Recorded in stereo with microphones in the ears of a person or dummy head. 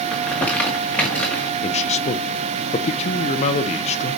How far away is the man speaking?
About 0.6 m.